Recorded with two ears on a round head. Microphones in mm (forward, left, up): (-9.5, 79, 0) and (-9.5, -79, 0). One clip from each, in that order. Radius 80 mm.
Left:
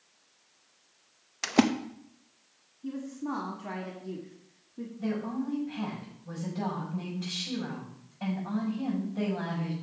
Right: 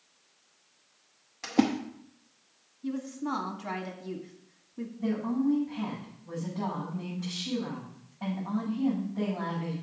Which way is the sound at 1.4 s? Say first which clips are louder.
Left 2 dB; 45° left (ahead or behind).